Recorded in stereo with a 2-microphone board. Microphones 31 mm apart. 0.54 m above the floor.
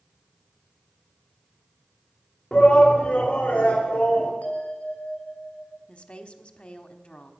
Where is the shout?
35° left (ahead or behind), 1.2 m; by 4.3 s 60° left (ahead or behind), 2 m.